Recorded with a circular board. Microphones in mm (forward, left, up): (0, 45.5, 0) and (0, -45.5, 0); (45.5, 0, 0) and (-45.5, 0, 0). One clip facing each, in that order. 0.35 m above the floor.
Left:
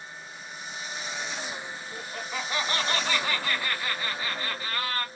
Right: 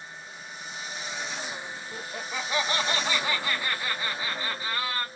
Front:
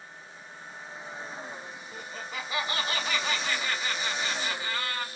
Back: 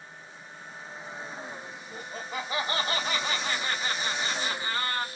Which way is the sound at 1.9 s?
150° right.